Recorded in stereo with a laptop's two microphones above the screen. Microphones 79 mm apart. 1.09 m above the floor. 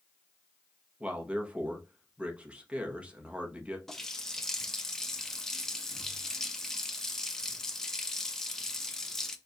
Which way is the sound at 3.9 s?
5° left (ahead or behind).